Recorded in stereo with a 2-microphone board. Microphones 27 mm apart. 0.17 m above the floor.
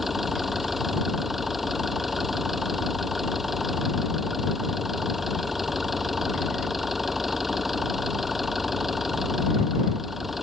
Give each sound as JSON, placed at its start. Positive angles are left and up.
{"t": 0.0, "sound": "an engine running", "side_deg": -10}